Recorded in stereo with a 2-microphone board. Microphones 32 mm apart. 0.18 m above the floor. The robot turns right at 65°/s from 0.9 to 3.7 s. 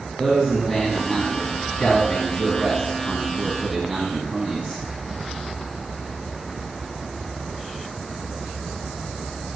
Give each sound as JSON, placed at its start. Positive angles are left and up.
{"t": 0.2, "sound": "a man speaking", "side_deg": 10, "distance_m": 1.4}